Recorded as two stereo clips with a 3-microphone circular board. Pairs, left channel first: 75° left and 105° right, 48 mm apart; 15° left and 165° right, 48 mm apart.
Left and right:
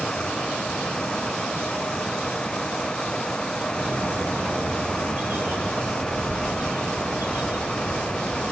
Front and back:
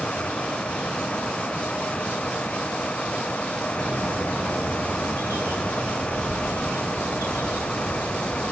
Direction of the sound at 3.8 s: 145° right.